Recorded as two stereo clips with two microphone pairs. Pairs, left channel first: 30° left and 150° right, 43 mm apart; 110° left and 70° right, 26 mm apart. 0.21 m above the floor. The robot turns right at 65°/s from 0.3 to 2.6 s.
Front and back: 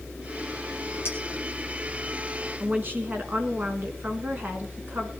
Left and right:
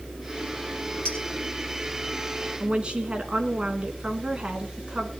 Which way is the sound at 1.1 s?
65° left.